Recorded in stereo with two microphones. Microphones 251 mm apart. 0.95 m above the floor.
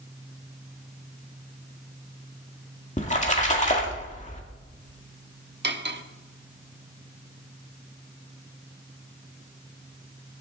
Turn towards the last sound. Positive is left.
turn(degrees=-45)  # may be behind; listen again after turning